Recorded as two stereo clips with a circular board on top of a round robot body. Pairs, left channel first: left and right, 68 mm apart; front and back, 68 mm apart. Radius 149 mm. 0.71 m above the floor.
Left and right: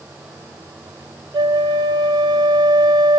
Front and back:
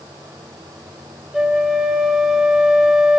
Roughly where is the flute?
Right.